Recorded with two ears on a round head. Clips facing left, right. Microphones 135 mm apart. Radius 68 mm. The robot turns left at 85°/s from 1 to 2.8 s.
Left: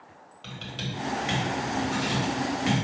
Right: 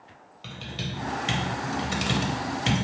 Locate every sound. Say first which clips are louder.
0.4 s typing on a keyboard: right 1 dB; 5° right (ahead or behind), 1.1 m; by 2.9 s 20° right (ahead or behind), 1.1 m